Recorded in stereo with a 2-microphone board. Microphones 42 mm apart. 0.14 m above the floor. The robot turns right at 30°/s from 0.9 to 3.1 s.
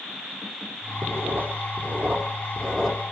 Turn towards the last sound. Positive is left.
turn(degrees=-10)  # may be behind; listen again after turning